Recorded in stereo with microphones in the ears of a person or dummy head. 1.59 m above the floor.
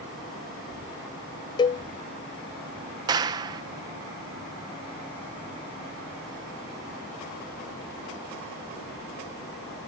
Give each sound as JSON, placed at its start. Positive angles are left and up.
{"t": 1.6, "sound": "a cowbell", "side_deg": 15}
{"t": 3.1, "sound": "a clap", "side_deg": -20}